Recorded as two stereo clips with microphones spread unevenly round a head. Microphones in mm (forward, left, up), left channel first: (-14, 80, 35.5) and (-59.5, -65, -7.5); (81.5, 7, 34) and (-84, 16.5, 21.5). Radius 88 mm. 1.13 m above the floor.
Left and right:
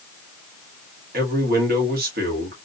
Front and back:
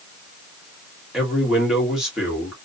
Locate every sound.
1.1 s a man speaking: 100° right, 1.9 m